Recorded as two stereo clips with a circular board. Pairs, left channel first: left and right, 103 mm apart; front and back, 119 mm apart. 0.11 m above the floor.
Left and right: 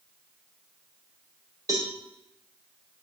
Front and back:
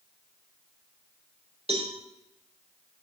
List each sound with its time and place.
1.7 s a cowbell: 145° right, 5 m